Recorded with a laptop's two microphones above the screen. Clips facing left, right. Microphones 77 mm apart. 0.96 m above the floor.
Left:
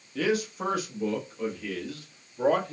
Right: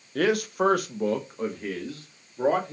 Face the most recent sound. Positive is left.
turn(degrees=-25)  # may be behind; listen again after turning